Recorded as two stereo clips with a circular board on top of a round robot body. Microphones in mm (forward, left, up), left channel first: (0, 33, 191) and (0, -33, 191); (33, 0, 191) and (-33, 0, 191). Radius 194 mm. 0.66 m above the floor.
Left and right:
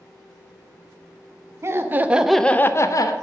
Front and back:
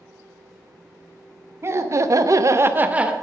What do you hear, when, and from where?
1.6 s laughter: 135° right, 1.3 m; by 3.1 s 105° left, 1.2 m